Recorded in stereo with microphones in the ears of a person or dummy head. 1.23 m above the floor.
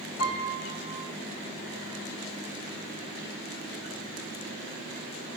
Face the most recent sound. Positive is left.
turn(degrees=80)